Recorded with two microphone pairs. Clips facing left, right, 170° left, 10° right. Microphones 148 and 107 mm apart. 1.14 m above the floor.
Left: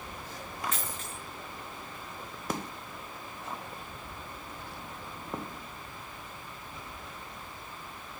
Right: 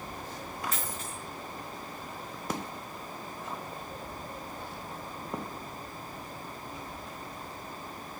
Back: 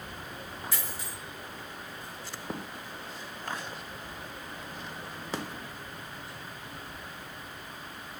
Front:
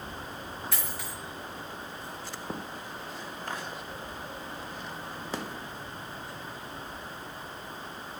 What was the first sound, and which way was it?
A dropped coin, 40° right.